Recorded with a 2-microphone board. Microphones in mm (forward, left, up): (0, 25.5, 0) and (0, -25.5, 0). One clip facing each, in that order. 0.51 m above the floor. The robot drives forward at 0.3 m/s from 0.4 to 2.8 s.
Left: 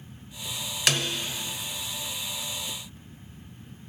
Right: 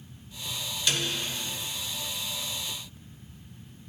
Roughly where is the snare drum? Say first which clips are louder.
Left 3 dB; left.